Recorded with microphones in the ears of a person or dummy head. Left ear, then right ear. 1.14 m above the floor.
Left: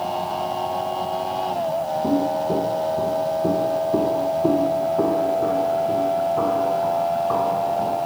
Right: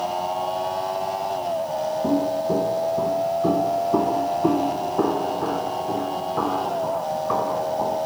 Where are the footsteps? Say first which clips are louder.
Even; 25° right (ahead or behind), 2 m; by 8.0 s 80° right, 7 m.